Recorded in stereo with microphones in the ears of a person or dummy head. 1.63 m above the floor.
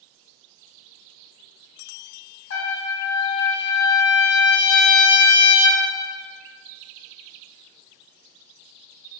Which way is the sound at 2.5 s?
70° left (ahead or behind).